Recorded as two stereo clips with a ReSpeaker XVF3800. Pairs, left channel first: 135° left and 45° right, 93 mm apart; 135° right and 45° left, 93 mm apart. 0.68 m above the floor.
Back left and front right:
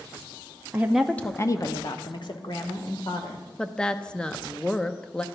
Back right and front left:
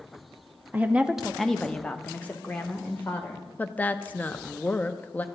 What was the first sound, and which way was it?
A woman speaking, straight ahead.